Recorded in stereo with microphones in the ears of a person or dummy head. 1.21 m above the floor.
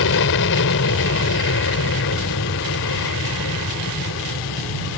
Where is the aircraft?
60° left (ahead or behind); by 5.0 s 65° left (ahead or behind).